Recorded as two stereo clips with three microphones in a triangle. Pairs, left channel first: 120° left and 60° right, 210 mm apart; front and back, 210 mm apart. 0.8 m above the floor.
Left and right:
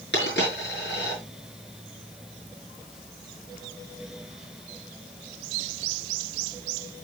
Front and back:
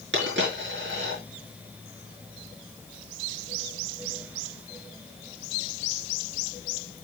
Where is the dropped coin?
155° left, 6 m.